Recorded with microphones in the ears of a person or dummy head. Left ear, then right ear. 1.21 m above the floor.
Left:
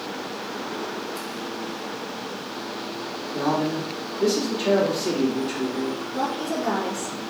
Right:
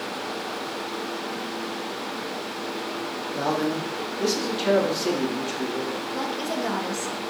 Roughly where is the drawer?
No drawer in this recording.